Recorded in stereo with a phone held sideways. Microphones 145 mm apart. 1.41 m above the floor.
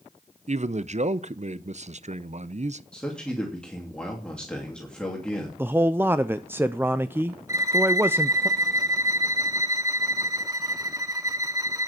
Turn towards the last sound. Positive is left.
turn(degrees=-25)  # may be behind; listen again after turning